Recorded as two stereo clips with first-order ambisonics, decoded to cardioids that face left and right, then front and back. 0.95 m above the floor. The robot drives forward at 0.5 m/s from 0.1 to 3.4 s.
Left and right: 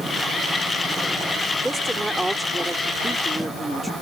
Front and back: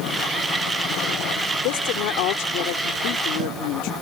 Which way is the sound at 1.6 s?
5° right.